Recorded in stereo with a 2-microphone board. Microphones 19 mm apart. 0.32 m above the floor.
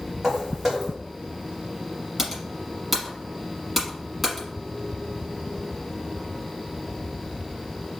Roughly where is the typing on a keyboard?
Centre.